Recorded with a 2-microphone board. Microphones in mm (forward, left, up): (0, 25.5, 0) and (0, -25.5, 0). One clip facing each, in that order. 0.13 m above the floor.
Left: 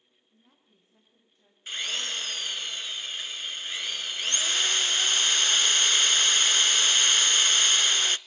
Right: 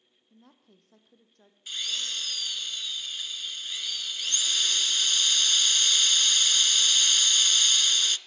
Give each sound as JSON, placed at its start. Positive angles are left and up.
{"t": 0.3, "sound": "a woman speaking", "side_deg": -75, "distance_m": 5.0}
{"t": 1.7, "sound": "a drill", "side_deg": 40, "distance_m": 0.5}